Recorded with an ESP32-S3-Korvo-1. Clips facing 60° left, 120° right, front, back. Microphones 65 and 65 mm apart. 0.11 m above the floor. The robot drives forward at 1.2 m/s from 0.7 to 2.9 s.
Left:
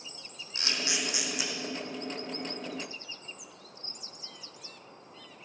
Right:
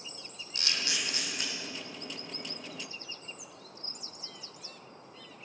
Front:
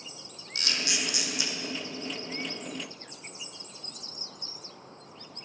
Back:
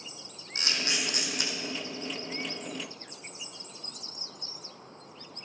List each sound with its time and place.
0.6 s a camera shutter: 120° left, 1.6 m; by 1.5 s 145° left, 2.5 m